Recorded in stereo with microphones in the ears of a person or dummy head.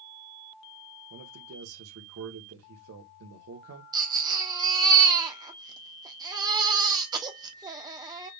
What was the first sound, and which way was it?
A man speaking, 70° right (ahead or behind).